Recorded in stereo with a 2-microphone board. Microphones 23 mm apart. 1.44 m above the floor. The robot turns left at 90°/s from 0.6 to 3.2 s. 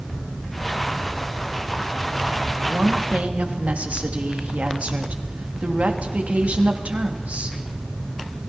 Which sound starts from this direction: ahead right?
A woman speaking, at 2.6 s.